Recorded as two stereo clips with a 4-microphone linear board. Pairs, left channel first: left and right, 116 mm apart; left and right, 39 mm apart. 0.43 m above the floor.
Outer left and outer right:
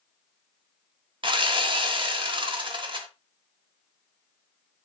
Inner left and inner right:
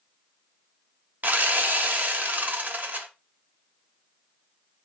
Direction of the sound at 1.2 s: 45° right (ahead or behind).